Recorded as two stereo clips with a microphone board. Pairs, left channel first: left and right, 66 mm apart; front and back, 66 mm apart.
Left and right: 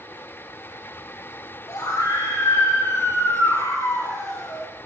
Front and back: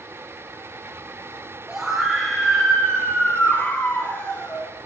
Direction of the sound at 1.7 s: 100° left.